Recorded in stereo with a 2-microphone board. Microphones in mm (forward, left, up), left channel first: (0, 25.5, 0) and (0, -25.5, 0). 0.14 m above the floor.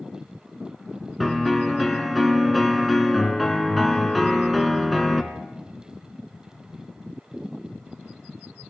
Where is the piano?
Centre (ahead or behind), 1.3 m.